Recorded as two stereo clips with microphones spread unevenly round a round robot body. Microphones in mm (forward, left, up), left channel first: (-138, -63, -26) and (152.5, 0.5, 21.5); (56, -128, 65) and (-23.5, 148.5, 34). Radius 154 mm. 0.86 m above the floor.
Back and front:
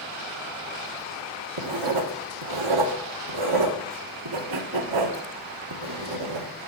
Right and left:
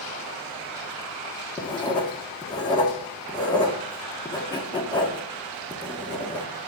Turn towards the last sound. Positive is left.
turn(degrees=0)